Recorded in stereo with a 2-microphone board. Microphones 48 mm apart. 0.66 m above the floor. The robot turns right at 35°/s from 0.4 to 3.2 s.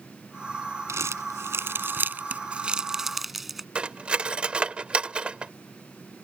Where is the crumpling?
80° right; by 3.6 s 5° right (ahead or behind).